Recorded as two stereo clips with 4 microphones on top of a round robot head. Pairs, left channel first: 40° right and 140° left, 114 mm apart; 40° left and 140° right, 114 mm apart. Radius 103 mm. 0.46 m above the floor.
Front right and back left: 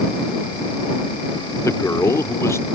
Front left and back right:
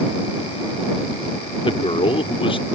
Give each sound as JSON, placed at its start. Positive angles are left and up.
{"t": 1.6, "sound": "a man speaking", "azimuth_deg": 20}